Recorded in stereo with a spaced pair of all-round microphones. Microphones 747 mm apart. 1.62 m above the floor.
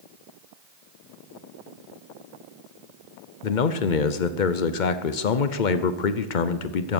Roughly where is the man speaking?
Left.